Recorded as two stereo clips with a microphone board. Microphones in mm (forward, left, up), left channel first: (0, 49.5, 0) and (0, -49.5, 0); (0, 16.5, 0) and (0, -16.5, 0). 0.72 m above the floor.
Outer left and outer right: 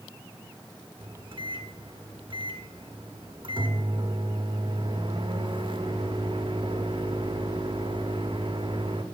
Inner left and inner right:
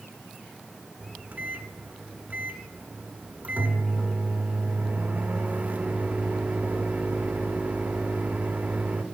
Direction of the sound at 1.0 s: 60° right (ahead or behind).